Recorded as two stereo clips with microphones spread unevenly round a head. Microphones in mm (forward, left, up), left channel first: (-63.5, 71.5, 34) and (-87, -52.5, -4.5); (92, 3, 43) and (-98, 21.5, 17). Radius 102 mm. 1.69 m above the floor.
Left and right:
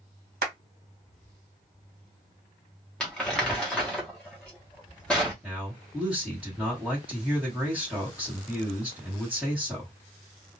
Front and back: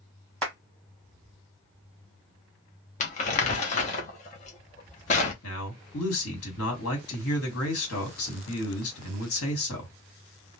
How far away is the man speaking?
About 1.3 m.